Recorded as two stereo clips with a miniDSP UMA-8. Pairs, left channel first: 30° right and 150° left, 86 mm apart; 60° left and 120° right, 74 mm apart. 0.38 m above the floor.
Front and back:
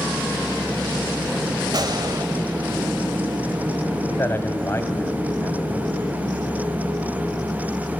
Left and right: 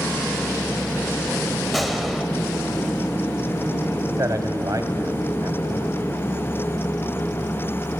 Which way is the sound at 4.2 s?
85° right.